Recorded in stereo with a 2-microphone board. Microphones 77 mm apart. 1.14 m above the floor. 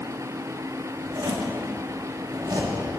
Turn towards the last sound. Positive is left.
turn(degrees=-60)  # may be behind; listen again after turning